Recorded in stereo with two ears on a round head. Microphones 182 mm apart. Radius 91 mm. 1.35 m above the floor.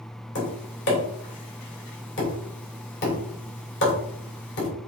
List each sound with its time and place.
0.3 s tapping: 65° left (ahead or behind), 3 m